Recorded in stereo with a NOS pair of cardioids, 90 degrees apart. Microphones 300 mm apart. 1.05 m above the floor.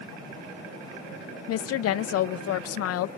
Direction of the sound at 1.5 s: 55° left.